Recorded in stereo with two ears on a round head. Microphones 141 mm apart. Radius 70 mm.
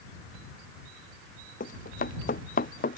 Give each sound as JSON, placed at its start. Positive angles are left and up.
{"t": 1.6, "sound": "running footsteps", "side_deg": 55}